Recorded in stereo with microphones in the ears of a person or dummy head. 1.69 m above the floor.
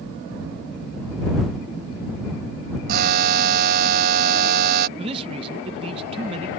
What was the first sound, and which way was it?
A buzzer, 50° right (ahead or behind).